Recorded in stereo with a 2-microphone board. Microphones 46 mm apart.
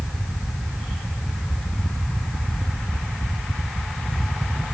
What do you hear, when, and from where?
Only background noise.